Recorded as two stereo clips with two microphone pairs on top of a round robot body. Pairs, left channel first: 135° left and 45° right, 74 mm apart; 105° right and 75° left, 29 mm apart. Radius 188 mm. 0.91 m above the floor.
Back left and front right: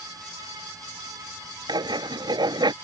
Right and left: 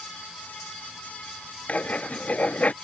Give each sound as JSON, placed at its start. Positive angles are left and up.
{"t": 1.7, "sound": "writing", "azimuth_deg": -65}